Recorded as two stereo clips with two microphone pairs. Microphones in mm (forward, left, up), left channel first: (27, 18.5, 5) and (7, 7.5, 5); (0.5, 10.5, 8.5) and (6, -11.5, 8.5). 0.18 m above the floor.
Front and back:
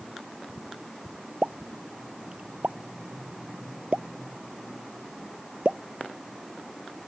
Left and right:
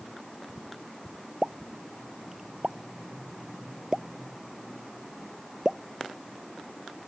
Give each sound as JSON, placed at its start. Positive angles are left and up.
{"t": 1.4, "sound": "a pop", "azimuth_deg": -130}